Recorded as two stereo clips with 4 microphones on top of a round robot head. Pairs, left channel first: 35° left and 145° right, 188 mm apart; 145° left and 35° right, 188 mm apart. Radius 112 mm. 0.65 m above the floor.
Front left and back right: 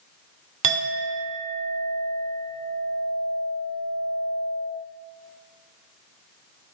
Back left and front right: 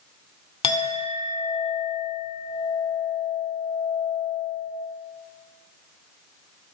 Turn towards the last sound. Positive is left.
turn(degrees=-155)